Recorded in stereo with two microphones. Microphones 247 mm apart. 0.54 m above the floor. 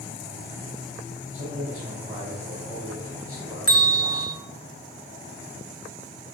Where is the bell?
60° left (ahead or behind), 0.9 m.